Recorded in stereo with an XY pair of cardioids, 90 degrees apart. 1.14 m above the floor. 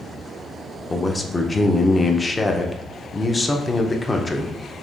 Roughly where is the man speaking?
Ahead left.